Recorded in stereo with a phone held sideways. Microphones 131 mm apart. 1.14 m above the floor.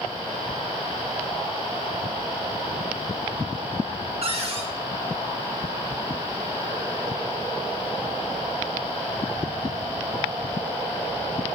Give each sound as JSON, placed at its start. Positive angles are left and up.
{"t": 4.2, "sound": "a cupboard door", "side_deg": -50, "distance_m": 1.1}